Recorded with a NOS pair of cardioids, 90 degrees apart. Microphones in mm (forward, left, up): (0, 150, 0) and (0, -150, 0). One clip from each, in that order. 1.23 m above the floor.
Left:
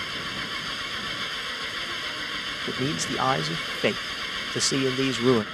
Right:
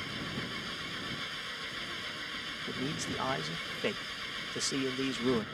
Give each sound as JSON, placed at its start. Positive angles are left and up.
{"t": 0.0, "sound": "an engine running", "azimuth_deg": 50}
{"t": 2.7, "sound": "a man speaking", "azimuth_deg": 55}